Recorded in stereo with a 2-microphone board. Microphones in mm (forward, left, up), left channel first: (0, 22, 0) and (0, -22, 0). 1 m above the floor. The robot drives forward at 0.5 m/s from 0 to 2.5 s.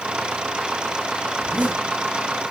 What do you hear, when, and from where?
1.4 s a zipper: 40° right (ahead or behind), 7 m